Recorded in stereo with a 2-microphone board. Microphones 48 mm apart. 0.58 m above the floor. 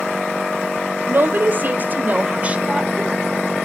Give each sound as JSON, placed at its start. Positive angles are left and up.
{"t": 1.1, "sound": "a woman speaking", "side_deg": -45, "distance_m": 2.0}